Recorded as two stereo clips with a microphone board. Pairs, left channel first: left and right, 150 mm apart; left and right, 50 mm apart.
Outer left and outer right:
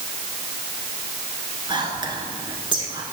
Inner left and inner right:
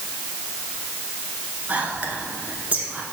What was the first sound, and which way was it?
Whispering, 30° right (ahead or behind).